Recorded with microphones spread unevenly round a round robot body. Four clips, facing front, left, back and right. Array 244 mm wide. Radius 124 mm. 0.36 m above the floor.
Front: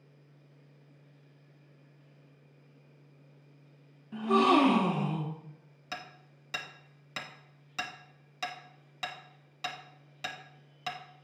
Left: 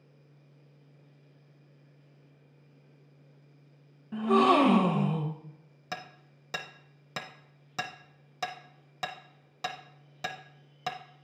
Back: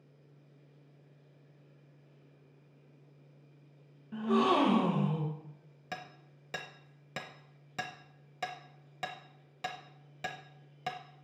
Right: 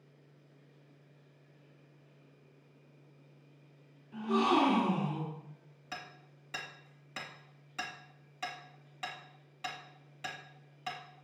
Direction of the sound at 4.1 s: 105° left.